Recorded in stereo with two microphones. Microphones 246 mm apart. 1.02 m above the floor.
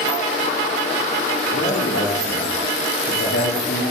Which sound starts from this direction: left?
A man speaking, at 1.5 s.